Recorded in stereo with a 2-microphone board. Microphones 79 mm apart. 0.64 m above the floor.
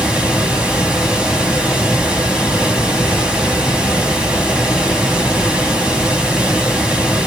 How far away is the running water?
About 1.1 m.